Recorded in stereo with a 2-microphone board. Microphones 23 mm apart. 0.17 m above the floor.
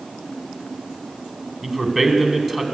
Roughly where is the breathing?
No breathing in this recording.